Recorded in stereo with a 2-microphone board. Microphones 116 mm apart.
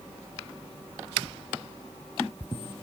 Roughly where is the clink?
I don't hear a clink.